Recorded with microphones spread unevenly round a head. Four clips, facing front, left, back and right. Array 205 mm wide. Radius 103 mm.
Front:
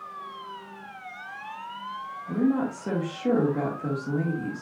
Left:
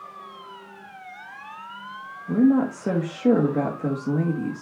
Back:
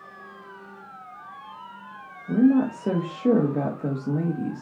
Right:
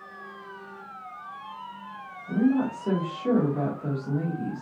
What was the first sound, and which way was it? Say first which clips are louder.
A woman speaking: left 5 dB, back 6 dB; 135° left.